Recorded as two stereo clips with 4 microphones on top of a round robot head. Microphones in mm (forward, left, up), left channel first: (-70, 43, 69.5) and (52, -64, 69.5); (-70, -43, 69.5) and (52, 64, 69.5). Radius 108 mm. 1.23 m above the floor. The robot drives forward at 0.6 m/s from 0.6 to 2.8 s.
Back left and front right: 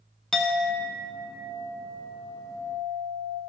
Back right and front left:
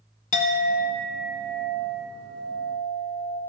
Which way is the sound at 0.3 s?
135° right.